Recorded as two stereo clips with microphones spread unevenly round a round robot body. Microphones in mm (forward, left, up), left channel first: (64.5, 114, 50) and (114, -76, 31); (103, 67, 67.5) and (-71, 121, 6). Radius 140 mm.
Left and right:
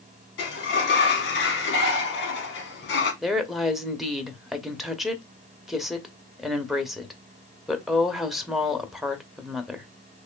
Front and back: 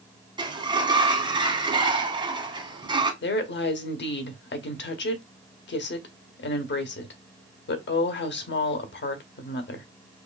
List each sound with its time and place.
0.4 s a sliding door: 120° left, 1.1 m
3.2 s a woman speaking: 10° left, 1.0 m